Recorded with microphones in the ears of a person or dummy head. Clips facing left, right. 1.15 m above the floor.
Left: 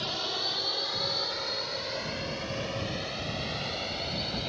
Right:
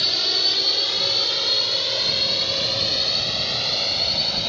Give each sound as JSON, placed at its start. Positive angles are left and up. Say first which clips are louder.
{"t": 0.0, "sound": "a drone", "louder": "right 4 dB", "side_deg": -30}